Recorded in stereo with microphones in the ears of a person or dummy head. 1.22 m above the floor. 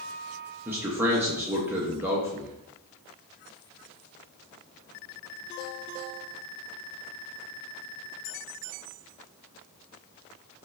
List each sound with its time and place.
0.7 s a man speaking: 10° right (ahead or behind), 0.8 m